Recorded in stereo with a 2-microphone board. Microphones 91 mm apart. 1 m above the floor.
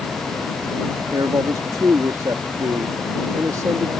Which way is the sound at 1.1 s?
45° right (ahead or behind).